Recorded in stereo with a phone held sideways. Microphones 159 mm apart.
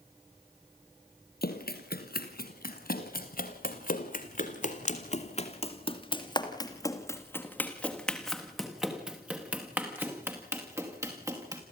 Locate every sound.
1.4 s running footsteps: 80° left, 4.5 m; by 11.6 s 20° right (ahead or behind), 5 m